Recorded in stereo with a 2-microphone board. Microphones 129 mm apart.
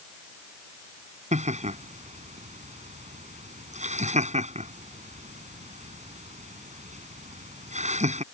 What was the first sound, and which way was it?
Laughter, 65° right (ahead or behind).